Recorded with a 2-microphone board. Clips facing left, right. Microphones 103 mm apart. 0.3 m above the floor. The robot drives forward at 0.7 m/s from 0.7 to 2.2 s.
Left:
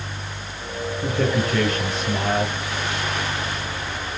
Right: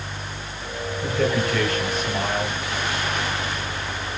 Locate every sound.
1.0 s a man speaking: 25° left (ahead or behind), 7 m; by 2.5 s 20° left (ahead or behind), 7.5 m